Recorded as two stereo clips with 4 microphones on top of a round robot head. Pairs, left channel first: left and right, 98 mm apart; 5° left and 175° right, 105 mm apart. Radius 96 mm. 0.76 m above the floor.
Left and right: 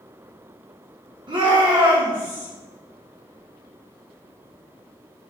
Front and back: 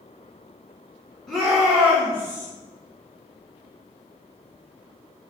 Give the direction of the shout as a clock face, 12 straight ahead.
3 o'clock.